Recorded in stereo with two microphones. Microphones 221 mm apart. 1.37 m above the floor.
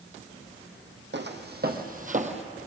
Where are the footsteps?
55° right (ahead or behind), 2.5 m; by 2.4 s 30° right (ahead or behind), 1.7 m.